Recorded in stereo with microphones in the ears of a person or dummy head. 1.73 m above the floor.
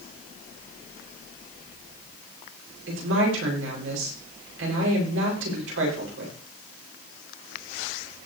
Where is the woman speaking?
85° right, 7 m.